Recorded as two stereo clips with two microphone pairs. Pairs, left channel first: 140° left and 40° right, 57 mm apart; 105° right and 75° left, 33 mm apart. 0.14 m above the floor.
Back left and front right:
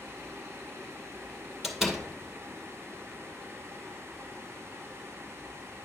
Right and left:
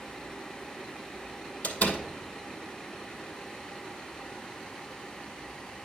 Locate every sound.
1.6 s a door slam: 120° right, 2 m